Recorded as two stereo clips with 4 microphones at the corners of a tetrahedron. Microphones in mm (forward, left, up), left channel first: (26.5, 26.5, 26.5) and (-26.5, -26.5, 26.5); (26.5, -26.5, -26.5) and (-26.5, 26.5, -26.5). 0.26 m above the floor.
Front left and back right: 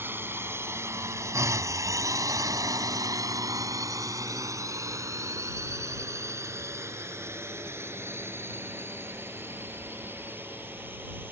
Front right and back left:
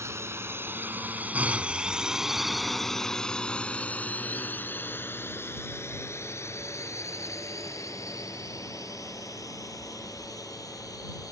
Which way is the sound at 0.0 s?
175° left.